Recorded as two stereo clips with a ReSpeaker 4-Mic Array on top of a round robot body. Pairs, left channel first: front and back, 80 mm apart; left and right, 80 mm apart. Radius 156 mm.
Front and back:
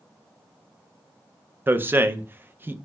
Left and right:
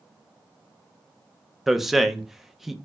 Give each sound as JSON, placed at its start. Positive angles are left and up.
{"t": 1.7, "sound": "a man speaking", "azimuth_deg": -170, "distance_m": 0.6}